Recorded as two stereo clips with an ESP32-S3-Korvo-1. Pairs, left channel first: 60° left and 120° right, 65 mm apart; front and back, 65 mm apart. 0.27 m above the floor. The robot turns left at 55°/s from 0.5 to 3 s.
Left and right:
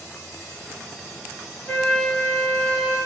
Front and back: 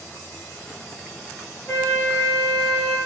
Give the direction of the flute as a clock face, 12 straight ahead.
11 o'clock.